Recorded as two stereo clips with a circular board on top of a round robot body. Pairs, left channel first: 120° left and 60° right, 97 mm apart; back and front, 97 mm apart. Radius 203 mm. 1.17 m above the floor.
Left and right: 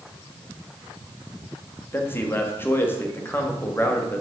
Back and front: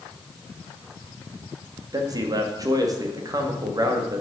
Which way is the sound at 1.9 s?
50° left.